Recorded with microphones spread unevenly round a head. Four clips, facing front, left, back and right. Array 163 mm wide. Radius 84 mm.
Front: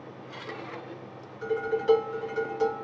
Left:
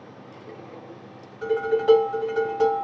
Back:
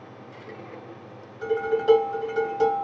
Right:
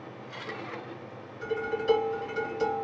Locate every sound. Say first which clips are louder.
1.4 s dishes clattering: left 8 dB, back 4 dB; 135° left, 1.3 m